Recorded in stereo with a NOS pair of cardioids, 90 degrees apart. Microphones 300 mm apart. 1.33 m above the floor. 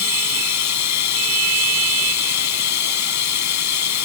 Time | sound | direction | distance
0.0 | running water | 65° left | ?